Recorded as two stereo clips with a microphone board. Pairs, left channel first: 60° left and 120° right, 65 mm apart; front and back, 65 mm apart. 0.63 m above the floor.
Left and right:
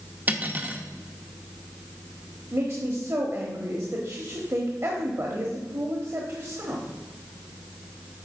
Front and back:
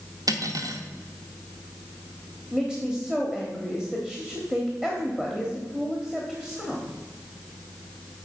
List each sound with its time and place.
0.3 s cutlery clinking: straight behind, 0.8 m
2.5 s a woman speaking: 100° right, 1.2 m